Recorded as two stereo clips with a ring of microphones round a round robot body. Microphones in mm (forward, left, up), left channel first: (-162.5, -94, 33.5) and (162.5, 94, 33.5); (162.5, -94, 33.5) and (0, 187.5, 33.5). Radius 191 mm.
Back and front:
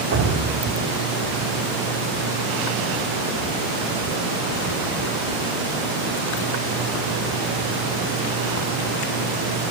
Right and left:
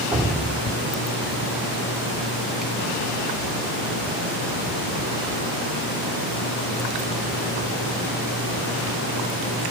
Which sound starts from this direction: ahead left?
Dripping, at 0.1 s.